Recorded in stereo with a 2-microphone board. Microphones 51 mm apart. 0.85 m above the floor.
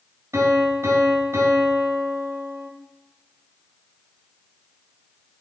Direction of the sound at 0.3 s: 75° right (ahead or behind).